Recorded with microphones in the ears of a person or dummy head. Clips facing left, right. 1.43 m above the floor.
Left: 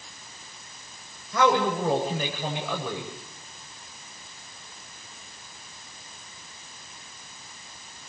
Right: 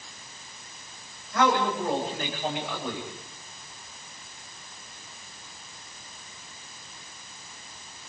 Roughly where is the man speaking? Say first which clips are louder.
Left 2 dB; left.